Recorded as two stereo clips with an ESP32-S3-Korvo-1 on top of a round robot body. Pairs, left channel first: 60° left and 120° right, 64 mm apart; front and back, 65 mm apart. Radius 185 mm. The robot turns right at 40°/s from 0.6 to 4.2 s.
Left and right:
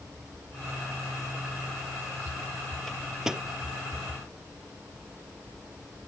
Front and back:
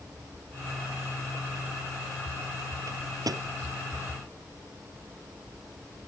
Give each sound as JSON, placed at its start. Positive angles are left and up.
{"t": 2.9, "sound": "a microwave", "azimuth_deg": 145}